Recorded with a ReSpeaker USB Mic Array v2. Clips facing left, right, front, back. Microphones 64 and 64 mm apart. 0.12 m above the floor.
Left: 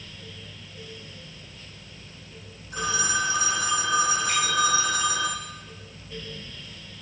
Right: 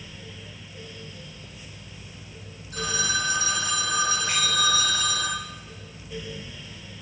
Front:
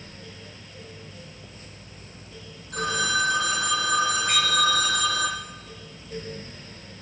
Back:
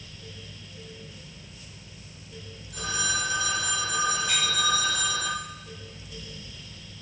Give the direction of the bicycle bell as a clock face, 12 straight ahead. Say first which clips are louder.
Left 2 dB, front 4 dB; 2 o'clock.